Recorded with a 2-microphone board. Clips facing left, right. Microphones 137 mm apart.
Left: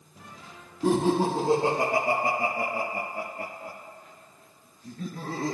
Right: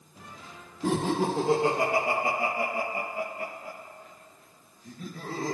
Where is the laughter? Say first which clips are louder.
Left 3 dB; 35° left (ahead or behind), 5.5 m; by 5.6 s 60° left (ahead or behind), 4.5 m.